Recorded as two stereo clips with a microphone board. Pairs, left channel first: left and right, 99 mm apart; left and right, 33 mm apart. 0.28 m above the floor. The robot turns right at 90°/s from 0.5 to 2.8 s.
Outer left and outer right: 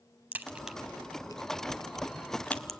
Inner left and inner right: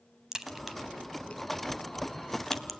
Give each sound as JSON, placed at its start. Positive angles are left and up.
{"t": 0.3, "sound": "a crack", "side_deg": -20, "distance_m": 1.2}